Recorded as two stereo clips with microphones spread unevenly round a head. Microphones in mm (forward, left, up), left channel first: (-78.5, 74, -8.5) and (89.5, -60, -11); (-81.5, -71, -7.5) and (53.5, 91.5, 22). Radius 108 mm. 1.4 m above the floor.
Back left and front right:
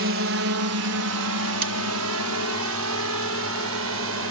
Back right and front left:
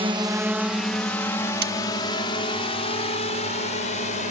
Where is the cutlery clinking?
10° left.